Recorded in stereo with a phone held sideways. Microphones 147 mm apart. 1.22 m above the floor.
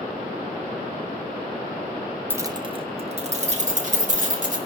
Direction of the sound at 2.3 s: 15° right (ahead or behind).